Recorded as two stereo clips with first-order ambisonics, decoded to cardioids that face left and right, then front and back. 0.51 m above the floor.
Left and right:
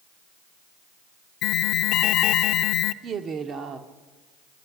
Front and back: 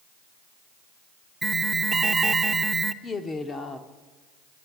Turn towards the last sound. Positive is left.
turn(degrees=-60)